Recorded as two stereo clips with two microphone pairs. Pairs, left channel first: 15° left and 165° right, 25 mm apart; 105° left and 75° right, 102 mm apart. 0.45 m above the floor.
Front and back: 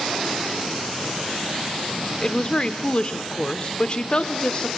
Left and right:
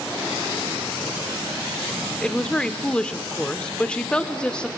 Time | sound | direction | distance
2.2 | a woman speaking | 35° left | 1.0 m